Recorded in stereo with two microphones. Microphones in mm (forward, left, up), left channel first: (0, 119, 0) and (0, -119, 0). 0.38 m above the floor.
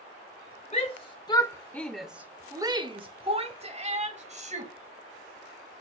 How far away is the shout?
About 1.1 m.